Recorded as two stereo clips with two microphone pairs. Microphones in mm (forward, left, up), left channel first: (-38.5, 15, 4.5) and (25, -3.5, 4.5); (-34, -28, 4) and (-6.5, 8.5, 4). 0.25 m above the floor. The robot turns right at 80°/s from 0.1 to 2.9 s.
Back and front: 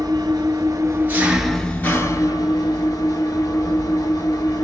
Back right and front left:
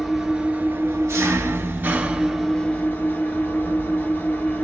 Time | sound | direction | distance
0.0 | an engine running | 35° right | 0.9 m